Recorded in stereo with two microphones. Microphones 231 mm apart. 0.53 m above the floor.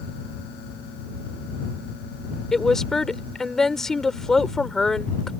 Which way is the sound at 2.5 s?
Centre (ahead or behind).